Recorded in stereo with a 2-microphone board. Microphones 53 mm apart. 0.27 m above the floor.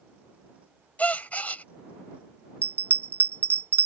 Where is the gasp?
30° left (ahead or behind).